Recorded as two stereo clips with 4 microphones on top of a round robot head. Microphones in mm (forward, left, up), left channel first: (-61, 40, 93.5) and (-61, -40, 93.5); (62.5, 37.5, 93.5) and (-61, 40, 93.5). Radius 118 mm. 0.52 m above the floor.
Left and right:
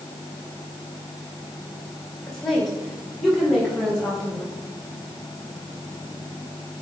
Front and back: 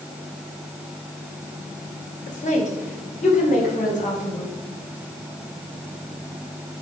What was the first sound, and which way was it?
A woman speaking, 5° left.